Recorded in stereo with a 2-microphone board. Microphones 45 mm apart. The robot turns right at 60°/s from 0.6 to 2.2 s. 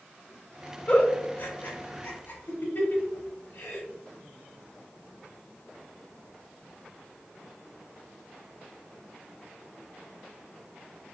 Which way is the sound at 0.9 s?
30° left (ahead or behind).